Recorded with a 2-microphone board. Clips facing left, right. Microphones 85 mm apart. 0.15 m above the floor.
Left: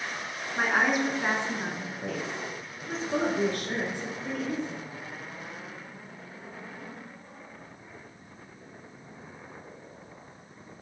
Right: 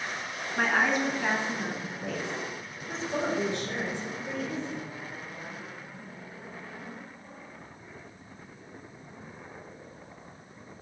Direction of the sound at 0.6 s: 10° left (ahead or behind).